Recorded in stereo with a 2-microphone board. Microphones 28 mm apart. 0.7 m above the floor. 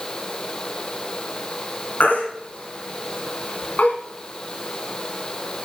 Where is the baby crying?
75° left (ahead or behind), 3 m.